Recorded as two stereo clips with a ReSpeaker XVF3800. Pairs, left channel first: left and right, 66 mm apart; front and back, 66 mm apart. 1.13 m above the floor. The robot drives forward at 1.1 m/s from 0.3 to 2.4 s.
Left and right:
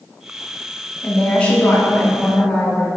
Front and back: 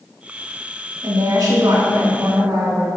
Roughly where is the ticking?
No ticking in this recording.